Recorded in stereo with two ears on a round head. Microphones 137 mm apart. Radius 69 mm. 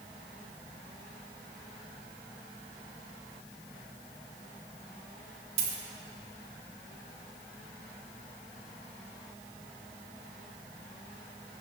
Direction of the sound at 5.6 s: 45° right (ahead or behind).